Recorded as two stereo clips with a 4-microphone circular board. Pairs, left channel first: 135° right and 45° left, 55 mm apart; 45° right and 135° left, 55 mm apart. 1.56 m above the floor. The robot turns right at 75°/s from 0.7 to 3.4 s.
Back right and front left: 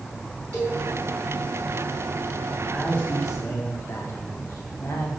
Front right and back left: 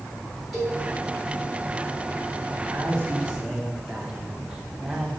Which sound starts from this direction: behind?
A man speaking, at 2.7 s.